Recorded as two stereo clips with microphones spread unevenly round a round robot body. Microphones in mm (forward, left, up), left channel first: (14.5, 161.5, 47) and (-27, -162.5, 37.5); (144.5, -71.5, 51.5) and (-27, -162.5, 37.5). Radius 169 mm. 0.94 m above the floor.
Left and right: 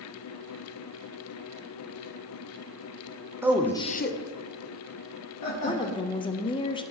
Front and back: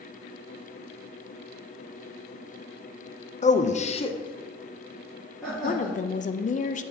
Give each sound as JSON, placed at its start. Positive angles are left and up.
{"t": 3.4, "sound": "a man speaking", "azimuth_deg": -20, "distance_m": 0.7}
{"t": 5.6, "sound": "a woman speaking", "azimuth_deg": 15, "distance_m": 0.5}